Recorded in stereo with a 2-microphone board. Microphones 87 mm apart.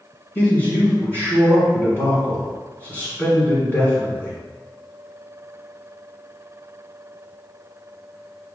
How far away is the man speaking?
About 1.8 m.